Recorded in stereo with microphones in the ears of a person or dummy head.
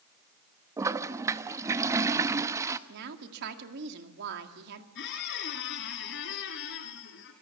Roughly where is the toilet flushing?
Centre.